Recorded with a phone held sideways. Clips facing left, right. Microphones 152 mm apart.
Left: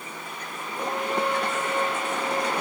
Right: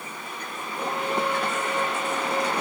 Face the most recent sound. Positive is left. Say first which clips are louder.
# even
turn(degrees=-5)  # may be behind; listen again after turning